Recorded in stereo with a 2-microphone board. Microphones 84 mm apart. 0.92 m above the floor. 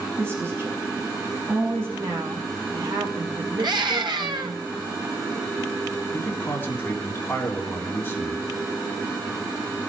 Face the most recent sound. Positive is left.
turn(degrees=25)  # may be behind; listen again after turning